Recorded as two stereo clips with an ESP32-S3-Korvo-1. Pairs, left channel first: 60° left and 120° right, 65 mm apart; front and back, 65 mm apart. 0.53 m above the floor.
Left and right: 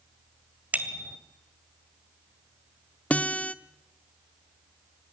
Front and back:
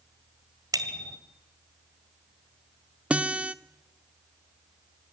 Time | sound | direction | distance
0.7 | a bicycle bell | 175° left | 2 m
3.1 | a guitar | 120° left | 0.9 m